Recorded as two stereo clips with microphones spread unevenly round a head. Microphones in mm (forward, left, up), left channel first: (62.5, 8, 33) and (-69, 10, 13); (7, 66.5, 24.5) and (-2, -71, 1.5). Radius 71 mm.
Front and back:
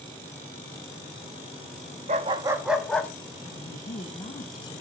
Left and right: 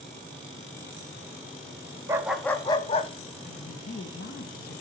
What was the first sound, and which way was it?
A dog barking, 170° right.